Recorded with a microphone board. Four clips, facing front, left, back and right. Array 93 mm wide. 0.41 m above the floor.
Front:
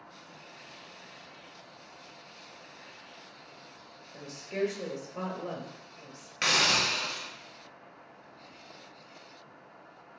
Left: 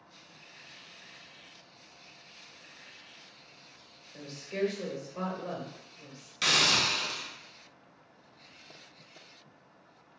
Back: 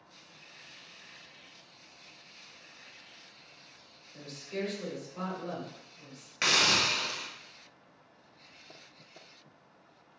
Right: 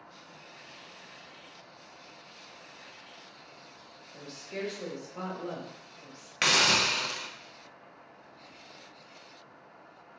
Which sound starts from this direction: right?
A hiss, at 6.4 s.